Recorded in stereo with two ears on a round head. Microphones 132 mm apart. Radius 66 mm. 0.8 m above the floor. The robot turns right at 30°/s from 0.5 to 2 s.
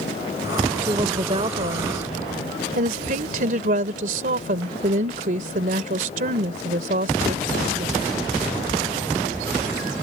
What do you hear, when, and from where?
0.9 s a woman speaking: 155° right; by 8.0 s 120° right